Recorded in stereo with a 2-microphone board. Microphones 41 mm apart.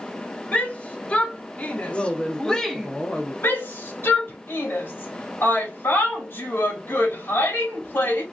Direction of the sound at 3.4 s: 60° left (ahead or behind).